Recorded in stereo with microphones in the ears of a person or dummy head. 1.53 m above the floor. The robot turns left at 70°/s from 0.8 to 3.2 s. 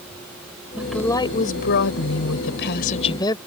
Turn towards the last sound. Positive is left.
turn(degrees=20)